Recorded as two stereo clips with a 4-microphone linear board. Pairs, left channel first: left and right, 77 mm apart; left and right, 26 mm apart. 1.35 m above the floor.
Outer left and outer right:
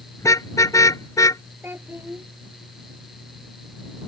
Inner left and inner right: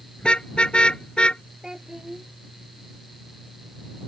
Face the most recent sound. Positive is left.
turn(degrees=-30)  # may be behind; listen again after turning